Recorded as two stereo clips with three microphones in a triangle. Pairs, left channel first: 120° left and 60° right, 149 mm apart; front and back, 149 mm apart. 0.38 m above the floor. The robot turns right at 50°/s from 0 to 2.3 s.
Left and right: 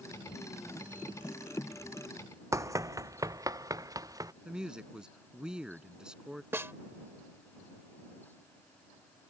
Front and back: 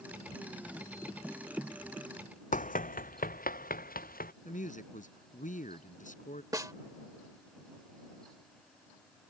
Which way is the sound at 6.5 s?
125° right.